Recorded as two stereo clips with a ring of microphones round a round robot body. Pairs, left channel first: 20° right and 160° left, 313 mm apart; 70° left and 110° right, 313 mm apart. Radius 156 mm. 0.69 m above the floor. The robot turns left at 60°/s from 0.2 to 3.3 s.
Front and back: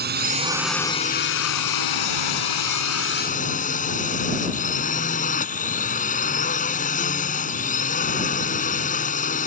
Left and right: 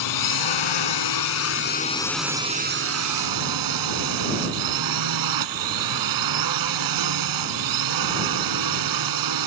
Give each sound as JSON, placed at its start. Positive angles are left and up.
{"t": 0.0, "sound": "a drone", "azimuth_deg": 95}